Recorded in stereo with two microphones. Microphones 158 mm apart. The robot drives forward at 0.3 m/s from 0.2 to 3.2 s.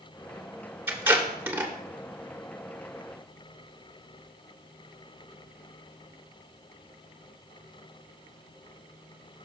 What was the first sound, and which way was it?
Tape being pulled, 15° right (ahead or behind).